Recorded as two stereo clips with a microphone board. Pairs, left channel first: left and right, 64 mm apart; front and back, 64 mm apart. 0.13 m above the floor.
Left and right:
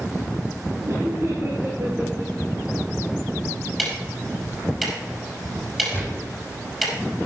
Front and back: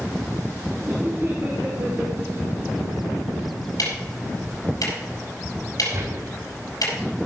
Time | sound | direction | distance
0.9 | laughter | 125° right | 2.5 m
3.8 | ticking | 5° right | 5 m
5.9 | a gunshot | 150° left | 5.5 m